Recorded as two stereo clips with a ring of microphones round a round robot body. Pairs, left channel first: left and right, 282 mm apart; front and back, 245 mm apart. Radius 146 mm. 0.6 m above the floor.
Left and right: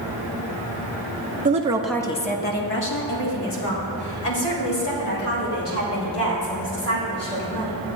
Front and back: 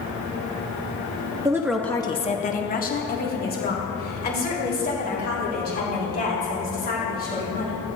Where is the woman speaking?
120° right, 0.7 m; by 7.8 s 50° left, 5.5 m.